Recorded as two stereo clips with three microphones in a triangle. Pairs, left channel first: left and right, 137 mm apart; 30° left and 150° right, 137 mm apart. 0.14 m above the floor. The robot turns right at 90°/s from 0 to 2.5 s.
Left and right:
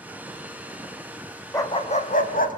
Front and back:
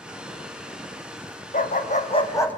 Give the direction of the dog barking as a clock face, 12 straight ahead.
11 o'clock.